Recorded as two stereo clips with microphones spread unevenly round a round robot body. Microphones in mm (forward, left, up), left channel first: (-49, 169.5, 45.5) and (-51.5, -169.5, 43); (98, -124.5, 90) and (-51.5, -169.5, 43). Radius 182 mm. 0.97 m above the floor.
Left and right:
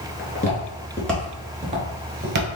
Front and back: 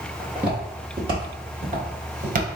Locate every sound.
0.2 s footsteps: 70° left, 1.0 m; by 2.5 s 135° right, 1.2 m